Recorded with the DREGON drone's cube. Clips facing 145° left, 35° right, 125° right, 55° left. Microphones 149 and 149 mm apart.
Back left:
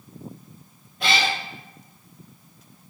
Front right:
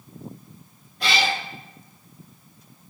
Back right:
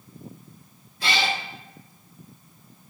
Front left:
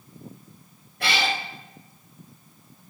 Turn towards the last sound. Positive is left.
turn(degrees=55)